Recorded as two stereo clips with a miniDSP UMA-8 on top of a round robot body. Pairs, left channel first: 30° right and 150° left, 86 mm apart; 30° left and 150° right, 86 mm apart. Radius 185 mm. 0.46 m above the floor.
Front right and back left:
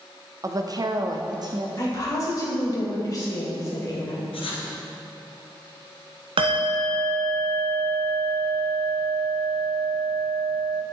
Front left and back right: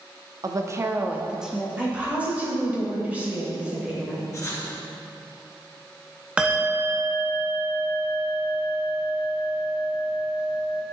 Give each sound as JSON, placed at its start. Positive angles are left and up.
{"t": 0.4, "sound": "a woman speaking", "azimuth_deg": -175, "distance_m": 0.9}
{"t": 1.8, "sound": "a woman speaking", "azimuth_deg": -80, "distance_m": 3.5}
{"t": 4.3, "sound": "writing", "azimuth_deg": -30, "distance_m": 2.0}
{"t": 6.4, "sound": "a bell", "azimuth_deg": 130, "distance_m": 0.9}